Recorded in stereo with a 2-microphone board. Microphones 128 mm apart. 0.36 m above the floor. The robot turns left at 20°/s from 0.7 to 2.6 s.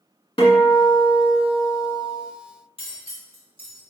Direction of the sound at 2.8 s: 45° left (ahead or behind).